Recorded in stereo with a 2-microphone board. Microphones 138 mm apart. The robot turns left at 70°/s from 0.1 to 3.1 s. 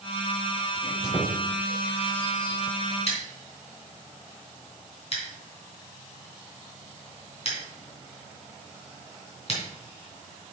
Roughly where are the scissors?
Left.